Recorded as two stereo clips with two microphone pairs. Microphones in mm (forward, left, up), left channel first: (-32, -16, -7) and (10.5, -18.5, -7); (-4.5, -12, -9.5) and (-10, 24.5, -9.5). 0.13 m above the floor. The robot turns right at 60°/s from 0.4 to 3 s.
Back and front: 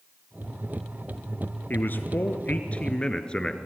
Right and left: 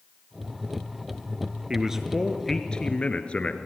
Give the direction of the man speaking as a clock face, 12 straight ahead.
7 o'clock.